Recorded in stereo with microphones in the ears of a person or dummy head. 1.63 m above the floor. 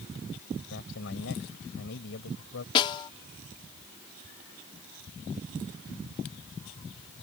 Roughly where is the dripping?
I don't hear dripping.